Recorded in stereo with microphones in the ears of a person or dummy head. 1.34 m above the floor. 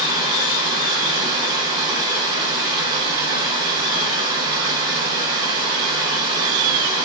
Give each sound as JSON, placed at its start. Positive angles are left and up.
{"t": 0.0, "sound": "running water", "side_deg": -25, "distance_m": 0.9}